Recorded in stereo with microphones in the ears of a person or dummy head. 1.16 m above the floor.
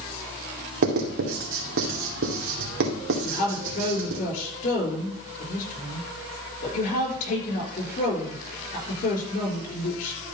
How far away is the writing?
About 2 m.